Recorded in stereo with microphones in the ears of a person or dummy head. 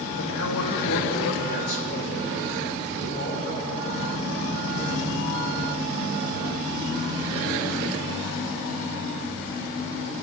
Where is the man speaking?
80° left, 2.5 m; by 5.4 s 30° left (ahead or behind), 6.5 m.